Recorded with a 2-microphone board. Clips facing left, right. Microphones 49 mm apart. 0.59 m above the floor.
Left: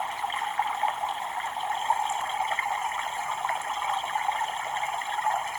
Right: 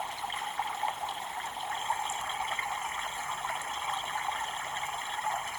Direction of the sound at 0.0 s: 30° left (ahead or behind).